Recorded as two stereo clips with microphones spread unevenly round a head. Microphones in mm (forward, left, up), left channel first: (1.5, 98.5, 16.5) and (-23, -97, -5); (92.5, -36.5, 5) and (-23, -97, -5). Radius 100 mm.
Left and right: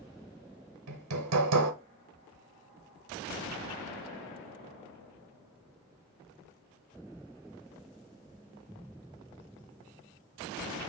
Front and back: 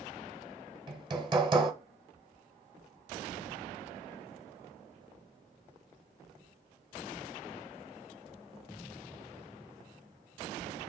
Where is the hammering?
95° right, 0.8 m.